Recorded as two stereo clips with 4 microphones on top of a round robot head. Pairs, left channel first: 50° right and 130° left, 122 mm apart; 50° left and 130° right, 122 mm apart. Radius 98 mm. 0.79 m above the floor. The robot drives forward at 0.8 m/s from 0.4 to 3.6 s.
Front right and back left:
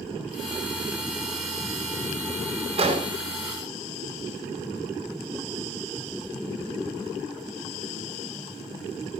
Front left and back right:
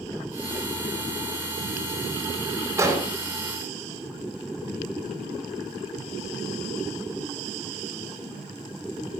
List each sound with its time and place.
2.8 s an explosion: 165° left, 4 m